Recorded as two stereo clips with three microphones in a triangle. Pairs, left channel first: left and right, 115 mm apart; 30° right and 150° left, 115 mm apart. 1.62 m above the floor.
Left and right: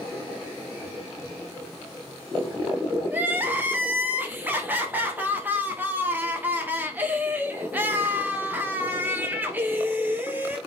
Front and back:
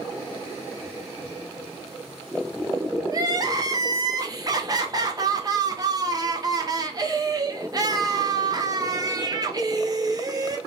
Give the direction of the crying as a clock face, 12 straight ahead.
5 o'clock.